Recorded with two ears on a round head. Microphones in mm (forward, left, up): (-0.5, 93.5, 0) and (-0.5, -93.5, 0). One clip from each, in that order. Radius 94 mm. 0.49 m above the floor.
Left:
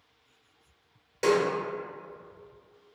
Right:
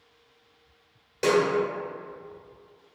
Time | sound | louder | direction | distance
1.2 | a snare drum | right 2 dB | 5° left (ahead or behind) | 1.1 m